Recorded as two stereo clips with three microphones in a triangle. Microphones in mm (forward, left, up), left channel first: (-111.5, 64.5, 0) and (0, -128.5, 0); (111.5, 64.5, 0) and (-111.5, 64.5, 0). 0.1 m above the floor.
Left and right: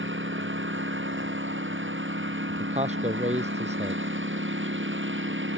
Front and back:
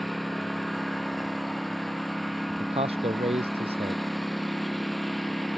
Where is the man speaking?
120° right.